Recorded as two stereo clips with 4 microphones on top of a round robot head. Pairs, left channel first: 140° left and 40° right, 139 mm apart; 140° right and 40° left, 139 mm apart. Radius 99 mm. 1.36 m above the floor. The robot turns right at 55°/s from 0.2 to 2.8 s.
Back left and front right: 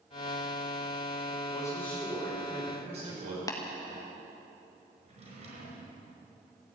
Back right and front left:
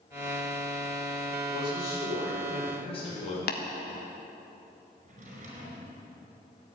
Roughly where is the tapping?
Behind right.